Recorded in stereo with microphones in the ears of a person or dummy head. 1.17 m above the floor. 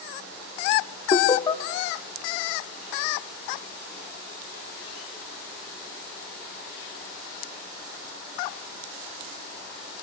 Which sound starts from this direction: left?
Laughter, at 1.1 s.